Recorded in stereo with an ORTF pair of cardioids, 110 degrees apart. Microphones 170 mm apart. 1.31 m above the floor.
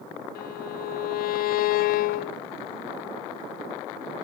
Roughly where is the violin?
Ahead left.